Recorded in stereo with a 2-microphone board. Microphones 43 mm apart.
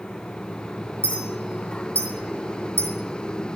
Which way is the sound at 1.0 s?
75° right (ahead or behind).